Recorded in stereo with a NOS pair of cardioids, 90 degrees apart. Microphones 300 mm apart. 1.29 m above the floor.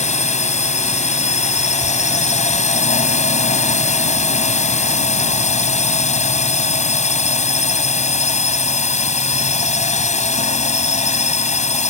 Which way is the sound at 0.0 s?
25° left.